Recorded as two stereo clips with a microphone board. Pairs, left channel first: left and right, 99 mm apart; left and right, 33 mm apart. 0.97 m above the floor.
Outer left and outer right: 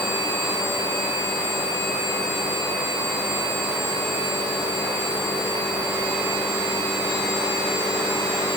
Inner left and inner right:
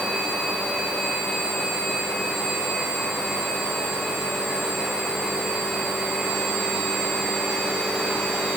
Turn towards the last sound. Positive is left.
No sound to turn to.